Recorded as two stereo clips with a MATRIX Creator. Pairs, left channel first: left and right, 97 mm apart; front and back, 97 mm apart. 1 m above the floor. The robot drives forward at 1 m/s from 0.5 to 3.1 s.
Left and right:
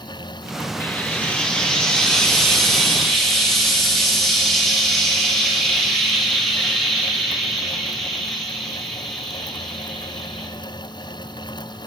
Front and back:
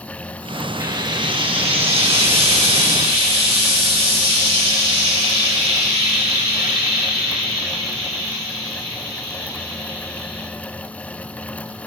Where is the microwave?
No microwave in this recording.